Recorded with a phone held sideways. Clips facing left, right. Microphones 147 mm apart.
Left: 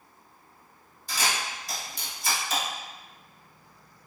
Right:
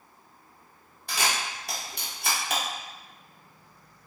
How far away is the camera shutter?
About 0.9 m.